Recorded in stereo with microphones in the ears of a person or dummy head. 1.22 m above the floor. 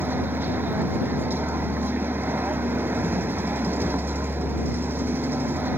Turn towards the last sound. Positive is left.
turn(degrees=-15)  # may be behind; listen again after turning